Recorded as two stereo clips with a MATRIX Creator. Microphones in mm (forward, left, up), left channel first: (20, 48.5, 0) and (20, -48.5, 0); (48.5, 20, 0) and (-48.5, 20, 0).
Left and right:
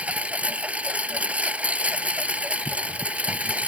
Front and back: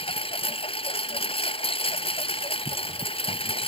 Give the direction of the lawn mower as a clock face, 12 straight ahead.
12 o'clock.